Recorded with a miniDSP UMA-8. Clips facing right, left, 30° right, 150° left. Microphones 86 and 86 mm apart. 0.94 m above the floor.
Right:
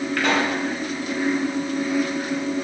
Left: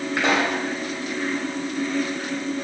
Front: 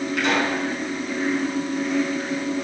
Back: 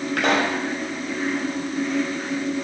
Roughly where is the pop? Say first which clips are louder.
Left 1 dB, back 2 dB; behind left.